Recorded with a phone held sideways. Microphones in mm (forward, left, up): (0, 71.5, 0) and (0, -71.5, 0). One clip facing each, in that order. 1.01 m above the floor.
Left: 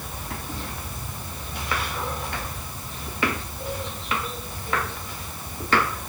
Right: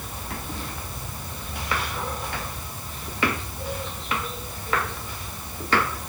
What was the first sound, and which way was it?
Only background noise.